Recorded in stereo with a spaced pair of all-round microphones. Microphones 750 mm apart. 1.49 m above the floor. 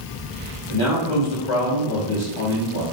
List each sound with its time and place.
0.7 s a man speaking: 40° left (ahead or behind), 3.5 m